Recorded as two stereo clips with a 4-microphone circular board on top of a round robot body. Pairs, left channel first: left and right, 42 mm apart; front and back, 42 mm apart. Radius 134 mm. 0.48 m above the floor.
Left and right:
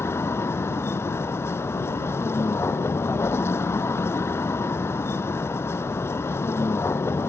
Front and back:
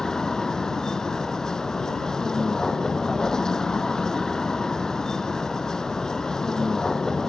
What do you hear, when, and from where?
0.0 s a vehicle: 75° left